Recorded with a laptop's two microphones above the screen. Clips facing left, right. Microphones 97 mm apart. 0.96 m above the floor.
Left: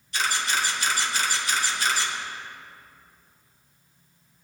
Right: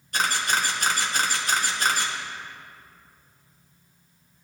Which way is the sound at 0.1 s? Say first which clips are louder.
Right 2 dB; 45° right (ahead or behind).